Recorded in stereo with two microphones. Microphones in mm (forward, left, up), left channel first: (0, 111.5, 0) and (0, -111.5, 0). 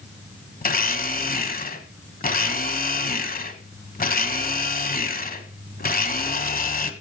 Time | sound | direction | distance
0.6 | a blender | 40° left (ahead or behind) | 1.4 m